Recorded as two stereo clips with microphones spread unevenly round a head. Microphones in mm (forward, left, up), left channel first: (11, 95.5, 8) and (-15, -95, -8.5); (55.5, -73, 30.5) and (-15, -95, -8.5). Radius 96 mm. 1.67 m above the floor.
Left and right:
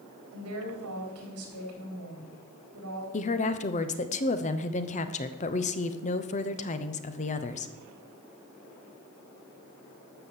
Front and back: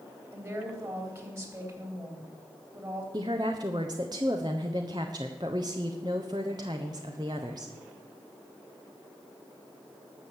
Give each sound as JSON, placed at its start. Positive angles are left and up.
{"t": 0.3, "sound": "a woman speaking", "azimuth_deg": -110, "distance_m": 3.5}
{"t": 3.1, "sound": "a woman speaking", "azimuth_deg": 140, "distance_m": 0.9}